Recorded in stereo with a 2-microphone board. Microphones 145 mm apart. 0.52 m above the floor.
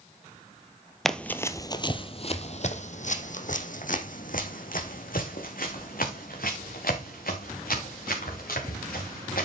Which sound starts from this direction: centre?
Running footsteps, at 1.1 s.